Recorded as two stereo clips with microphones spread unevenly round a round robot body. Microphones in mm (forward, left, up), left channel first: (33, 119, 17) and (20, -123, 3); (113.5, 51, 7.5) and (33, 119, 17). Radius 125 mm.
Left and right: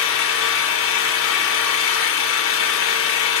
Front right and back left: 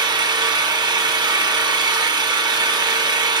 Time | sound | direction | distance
0.0 | an engine running | 100° left | 1.0 m